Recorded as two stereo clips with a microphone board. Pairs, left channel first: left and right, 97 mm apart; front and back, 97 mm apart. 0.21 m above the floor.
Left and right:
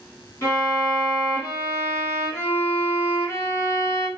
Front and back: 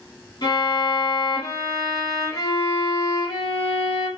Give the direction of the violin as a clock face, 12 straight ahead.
11 o'clock.